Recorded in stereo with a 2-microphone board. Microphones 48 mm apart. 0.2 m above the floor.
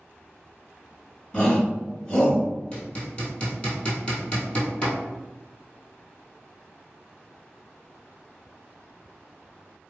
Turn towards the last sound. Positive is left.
turn(degrees=25)  # may be behind; listen again after turning